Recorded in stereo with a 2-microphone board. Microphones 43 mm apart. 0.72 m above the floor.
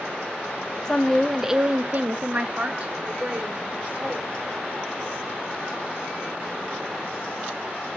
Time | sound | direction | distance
0.8 | a woman speaking | 15° left (ahead or behind) | 1.2 m